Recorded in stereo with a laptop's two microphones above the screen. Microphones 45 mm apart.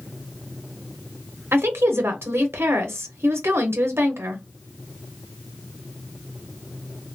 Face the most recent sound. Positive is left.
turn(degrees=-65)  # may be behind; listen again after turning